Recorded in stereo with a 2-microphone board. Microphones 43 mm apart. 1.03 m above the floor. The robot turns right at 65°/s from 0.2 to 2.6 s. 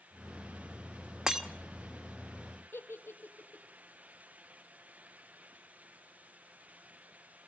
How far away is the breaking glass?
About 1.6 m.